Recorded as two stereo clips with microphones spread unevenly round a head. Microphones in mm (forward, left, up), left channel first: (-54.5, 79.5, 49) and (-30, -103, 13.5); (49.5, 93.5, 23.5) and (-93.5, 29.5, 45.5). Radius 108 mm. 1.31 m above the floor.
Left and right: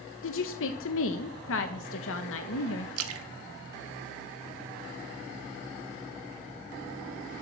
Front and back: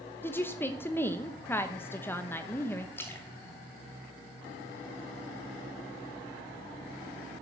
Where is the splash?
60° right, 1.1 m.